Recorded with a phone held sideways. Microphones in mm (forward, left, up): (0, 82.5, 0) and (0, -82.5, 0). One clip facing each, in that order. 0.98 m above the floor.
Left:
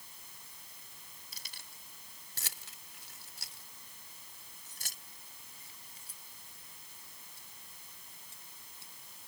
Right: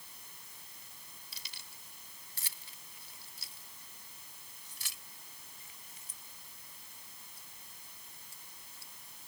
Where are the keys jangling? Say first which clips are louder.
Even; 50° left (ahead or behind); by 9.3 s 20° left (ahead or behind).